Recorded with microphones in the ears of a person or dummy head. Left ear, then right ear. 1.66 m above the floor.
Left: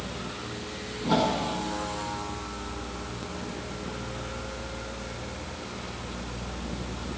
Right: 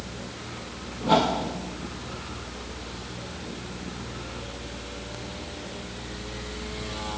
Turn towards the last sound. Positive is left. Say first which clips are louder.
# right 3 dB
turn(degrees=-15)  # may be behind; listen again after turning